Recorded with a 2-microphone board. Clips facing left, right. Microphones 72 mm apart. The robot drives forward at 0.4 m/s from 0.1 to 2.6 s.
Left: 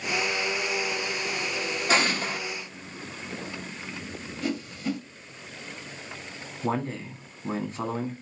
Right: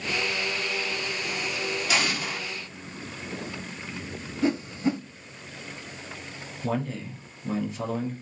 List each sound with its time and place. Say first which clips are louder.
1.9 s an explosion: left 5 dB; 40° left (ahead or behind), 1.1 m; by 2.4 s 35° left (ahead or behind), 1.2 m
4.4 s a whoosh: right 5 dB; 30° right (ahead or behind), 0.6 m
6.6 s a man speaking: left 1 dB; 40° left (ahead or behind), 1.4 m